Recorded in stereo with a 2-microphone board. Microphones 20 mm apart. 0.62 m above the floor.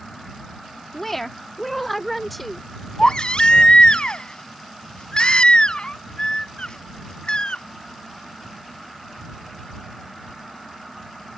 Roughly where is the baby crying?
Left.